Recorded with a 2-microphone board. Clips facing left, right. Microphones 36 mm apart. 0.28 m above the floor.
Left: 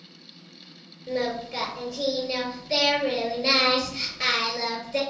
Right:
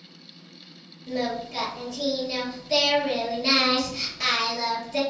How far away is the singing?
About 4 m.